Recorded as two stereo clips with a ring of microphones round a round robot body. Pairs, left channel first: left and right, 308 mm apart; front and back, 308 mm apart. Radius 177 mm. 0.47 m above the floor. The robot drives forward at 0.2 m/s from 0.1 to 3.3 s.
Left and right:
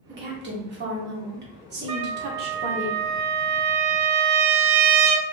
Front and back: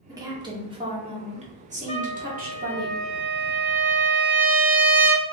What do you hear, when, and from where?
0.1 s a woman speaking: 110° right, 1.5 m; by 2.9 s 135° right, 1.7 m
1.9 s a trumpet: 75° right, 0.8 m; by 5.2 s 95° right, 0.7 m